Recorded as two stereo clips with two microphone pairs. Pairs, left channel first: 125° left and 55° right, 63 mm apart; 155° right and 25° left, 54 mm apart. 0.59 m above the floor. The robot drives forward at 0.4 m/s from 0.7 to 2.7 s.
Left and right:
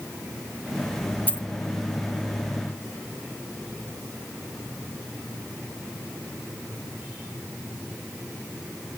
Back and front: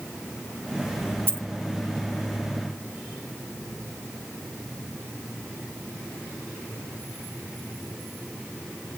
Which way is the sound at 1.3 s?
65° left.